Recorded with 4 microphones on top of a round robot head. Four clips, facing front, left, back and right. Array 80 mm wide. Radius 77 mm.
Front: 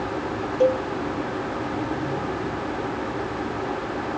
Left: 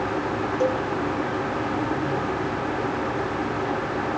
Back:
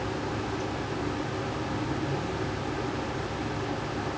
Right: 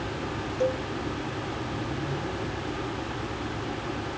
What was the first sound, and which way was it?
A cowbell, 15° left.